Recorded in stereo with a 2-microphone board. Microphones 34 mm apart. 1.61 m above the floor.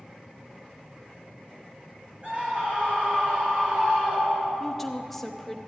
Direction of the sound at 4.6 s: 10° left (ahead or behind).